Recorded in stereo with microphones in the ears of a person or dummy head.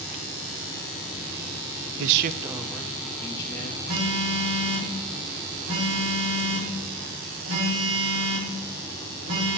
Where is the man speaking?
70° right (ahead or behind), 0.7 m; by 3.8 s 25° left (ahead or behind), 2.5 m.